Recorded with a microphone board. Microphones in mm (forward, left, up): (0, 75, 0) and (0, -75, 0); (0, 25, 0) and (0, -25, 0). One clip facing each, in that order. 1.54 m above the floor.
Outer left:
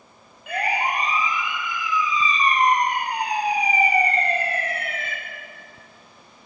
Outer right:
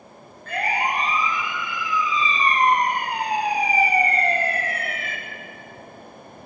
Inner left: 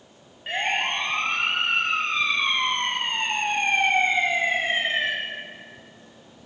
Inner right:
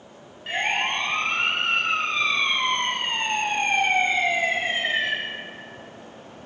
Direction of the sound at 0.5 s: 10° left (ahead or behind).